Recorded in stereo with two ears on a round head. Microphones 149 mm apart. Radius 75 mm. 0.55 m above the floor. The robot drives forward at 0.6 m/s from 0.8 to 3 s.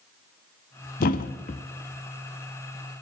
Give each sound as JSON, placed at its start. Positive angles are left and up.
{"t": 1.0, "sound": "a thud", "side_deg": 55, "distance_m": 0.6}